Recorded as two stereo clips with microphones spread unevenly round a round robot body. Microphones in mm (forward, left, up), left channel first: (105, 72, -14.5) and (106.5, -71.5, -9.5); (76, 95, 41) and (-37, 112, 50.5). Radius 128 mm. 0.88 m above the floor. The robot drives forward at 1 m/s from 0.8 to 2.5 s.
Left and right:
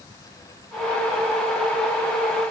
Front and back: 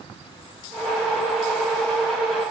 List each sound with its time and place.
Only background noise.